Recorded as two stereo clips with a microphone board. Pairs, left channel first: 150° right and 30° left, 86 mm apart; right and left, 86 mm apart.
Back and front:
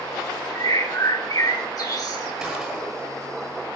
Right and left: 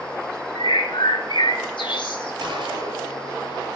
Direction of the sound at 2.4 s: 115° left.